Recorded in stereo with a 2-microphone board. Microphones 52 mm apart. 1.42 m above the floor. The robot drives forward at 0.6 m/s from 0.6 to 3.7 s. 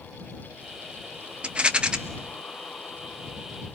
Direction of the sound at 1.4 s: 20° right (ahead or behind).